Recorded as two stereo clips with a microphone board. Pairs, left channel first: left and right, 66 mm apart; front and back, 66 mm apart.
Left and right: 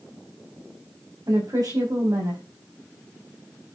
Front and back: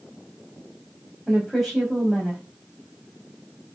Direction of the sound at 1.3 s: 95° right.